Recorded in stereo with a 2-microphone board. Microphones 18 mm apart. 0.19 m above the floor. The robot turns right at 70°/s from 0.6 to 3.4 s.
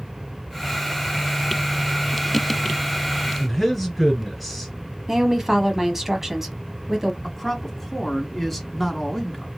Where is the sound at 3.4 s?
5° right (ahead or behind), 2 m.